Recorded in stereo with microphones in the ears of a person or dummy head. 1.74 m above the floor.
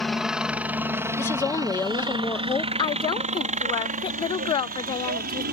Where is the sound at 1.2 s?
15° left (ahead or behind).